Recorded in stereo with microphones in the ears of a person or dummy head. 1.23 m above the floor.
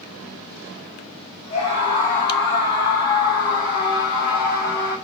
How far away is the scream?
About 9.5 m.